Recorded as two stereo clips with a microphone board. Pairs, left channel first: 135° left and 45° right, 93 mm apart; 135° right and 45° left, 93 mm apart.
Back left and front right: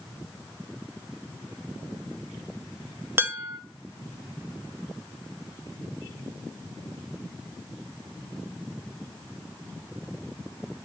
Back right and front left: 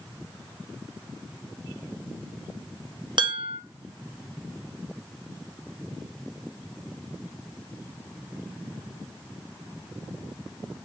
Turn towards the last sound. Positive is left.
turn(degrees=20)